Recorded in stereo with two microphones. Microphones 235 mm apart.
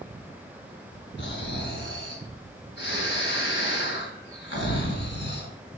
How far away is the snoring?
About 2.5 m.